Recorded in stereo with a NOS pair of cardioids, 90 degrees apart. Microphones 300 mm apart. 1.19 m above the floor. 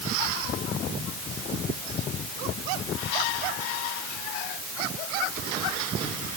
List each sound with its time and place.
Only background noise.